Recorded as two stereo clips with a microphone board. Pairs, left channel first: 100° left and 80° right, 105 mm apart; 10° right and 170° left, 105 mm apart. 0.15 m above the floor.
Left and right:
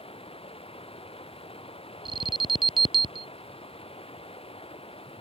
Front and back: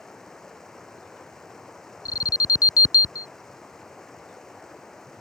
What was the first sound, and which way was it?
Running water, 75° left.